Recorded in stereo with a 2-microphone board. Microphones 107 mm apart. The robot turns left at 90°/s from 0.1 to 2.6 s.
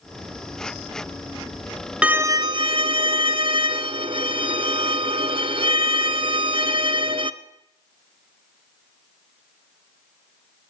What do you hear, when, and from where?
2.0 s a violin: 10° right, 0.7 m; by 7.3 s 65° right, 0.7 m